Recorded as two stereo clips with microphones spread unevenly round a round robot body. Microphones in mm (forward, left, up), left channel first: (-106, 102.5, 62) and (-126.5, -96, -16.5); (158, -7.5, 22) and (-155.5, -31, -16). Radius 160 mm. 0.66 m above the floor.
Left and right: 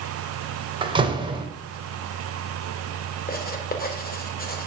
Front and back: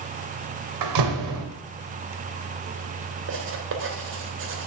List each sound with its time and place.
0.8 s a door slam: 155° right, 2.5 m
3.3 s writing: 135° left, 3 m